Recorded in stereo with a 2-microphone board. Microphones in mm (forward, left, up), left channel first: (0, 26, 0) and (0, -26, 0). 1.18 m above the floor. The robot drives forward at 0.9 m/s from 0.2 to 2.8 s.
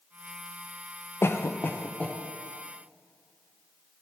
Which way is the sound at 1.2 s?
50° left (ahead or behind).